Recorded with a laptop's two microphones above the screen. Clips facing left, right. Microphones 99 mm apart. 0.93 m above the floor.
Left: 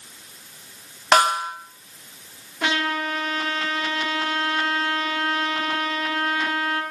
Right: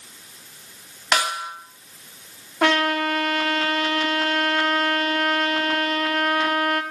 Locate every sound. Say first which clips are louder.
1.1 s a snare drum: left 6 dB; 45° left (ahead or behind), 1.8 m
2.6 s a trumpet: right 5 dB; 70° right (ahead or behind), 1.5 m